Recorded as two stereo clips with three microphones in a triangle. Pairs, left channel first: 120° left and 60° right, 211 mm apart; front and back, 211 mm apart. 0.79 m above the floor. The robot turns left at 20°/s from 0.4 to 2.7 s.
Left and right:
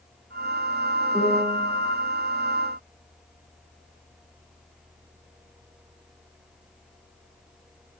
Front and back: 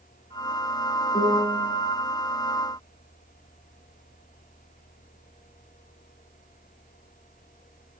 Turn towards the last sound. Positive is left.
turn(degrees=35)